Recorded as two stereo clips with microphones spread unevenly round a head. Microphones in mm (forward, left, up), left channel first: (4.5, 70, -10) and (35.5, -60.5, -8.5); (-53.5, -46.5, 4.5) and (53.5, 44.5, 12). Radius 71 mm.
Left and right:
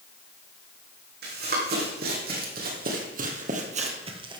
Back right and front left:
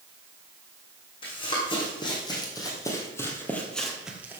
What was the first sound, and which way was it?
Running footsteps, 80° right.